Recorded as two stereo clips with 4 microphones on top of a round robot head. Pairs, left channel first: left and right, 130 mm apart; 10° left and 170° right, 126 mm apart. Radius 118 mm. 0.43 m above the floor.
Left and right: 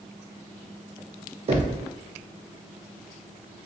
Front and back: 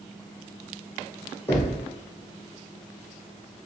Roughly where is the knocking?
Ahead right.